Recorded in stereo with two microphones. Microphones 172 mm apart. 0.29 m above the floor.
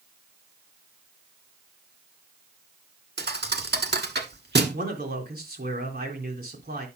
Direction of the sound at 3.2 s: 75° right (ahead or behind).